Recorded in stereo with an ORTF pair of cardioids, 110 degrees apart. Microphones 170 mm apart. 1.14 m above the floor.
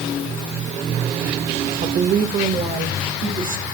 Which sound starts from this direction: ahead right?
A woman speaking, at 1.8 s.